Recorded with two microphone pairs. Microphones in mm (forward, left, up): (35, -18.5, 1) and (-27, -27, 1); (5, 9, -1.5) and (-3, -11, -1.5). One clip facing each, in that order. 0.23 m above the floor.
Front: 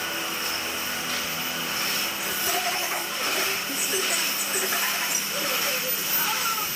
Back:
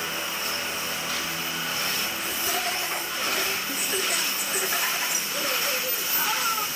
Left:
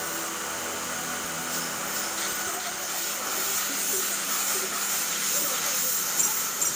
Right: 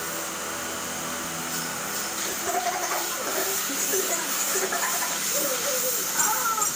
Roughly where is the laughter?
Right.